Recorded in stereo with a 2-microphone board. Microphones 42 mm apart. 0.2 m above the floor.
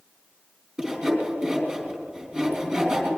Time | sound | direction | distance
0.8 | sawing | 25° right (ahead or behind) | 3.5 m